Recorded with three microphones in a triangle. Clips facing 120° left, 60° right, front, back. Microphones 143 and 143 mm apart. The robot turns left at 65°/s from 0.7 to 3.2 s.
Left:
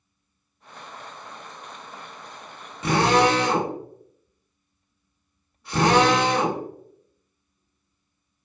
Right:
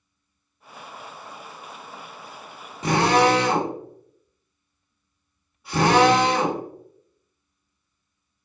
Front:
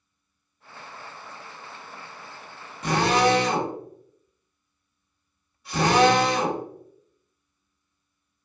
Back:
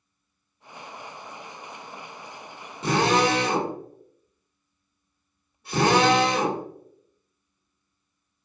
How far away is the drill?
About 1.8 m.